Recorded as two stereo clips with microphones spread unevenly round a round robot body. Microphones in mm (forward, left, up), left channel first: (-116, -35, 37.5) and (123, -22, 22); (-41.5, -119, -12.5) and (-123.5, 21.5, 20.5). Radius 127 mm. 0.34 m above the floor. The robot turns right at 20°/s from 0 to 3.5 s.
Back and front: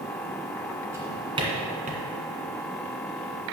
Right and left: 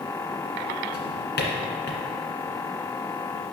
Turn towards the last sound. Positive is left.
turn(degrees=-25)